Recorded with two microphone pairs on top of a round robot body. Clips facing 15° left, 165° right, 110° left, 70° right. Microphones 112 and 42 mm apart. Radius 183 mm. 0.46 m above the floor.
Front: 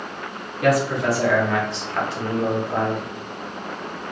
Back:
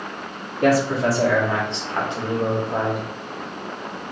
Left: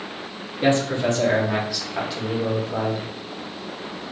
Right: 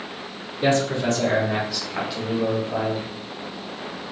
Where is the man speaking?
170° left, 1.5 m; by 3.0 s 85° right, 1.4 m.